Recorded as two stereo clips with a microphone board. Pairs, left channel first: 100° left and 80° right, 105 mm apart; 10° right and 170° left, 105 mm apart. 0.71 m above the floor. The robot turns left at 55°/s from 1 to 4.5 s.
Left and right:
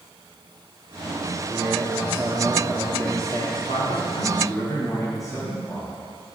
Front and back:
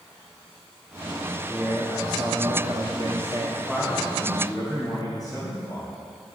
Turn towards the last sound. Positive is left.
turn(degrees=45)